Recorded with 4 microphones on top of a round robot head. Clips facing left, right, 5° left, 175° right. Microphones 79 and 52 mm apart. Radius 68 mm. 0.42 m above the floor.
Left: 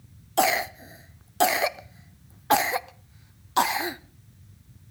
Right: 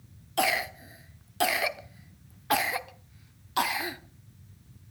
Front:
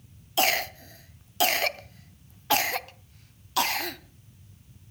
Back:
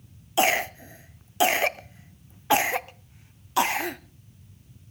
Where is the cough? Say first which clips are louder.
Left 5 dB, back 3 dB; 130° left, 0.9 m.